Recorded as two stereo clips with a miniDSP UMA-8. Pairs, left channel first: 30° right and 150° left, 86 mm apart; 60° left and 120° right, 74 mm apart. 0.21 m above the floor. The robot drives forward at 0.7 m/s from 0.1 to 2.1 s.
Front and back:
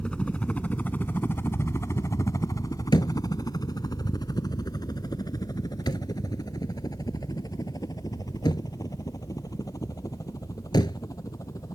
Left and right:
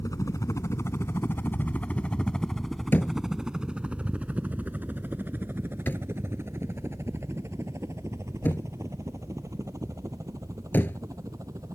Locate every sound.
0.0 s a helicopter: 45° left; by 11.8 s 75° right
2.9 s a thud: straight ahead